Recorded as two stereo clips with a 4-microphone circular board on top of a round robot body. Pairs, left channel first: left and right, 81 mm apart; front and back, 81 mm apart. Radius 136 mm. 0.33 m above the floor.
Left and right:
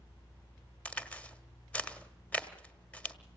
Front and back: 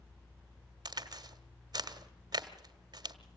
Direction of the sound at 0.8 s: 160° left.